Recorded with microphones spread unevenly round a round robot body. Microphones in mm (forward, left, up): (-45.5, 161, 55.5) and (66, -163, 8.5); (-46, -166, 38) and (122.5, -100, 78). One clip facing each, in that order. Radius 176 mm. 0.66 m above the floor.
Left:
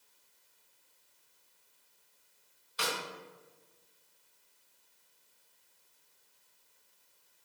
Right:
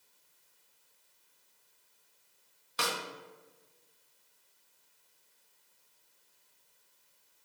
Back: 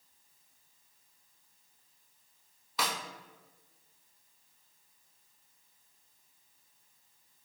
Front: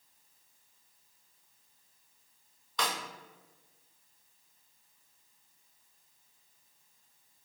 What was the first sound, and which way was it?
A snare drum, 80° right.